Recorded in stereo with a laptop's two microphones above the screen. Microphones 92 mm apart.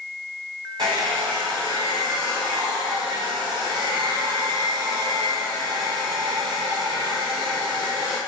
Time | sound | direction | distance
0.8 | a hair dryer | 60° right (ahead or behind) | 1.7 m